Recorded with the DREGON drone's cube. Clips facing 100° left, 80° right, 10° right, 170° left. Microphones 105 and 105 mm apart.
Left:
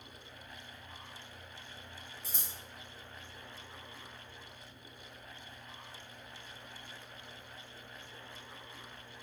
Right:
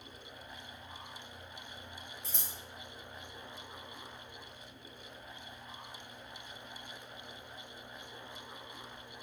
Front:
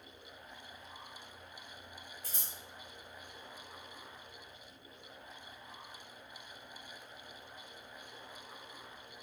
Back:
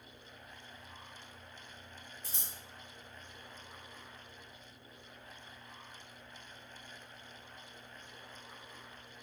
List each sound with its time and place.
2.2 s scissors: 170° right, 1.1 m